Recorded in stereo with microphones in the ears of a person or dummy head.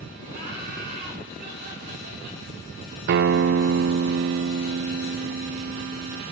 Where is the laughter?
55° right (ahead or behind), 8 m.